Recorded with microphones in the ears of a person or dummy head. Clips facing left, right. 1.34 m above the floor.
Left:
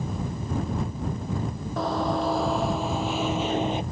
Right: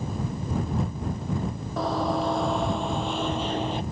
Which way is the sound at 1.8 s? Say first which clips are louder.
Even; centre (ahead or behind).